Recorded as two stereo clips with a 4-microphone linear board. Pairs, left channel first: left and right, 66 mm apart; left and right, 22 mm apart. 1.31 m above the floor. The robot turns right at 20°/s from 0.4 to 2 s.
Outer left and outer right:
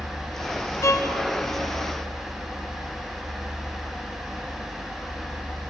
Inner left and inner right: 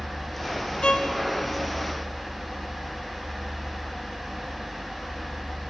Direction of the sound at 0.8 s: 45° left (ahead or behind).